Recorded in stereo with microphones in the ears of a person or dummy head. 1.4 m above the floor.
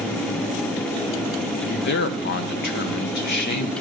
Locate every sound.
1.6 s a man speaking: 55° left (ahead or behind), 0.7 m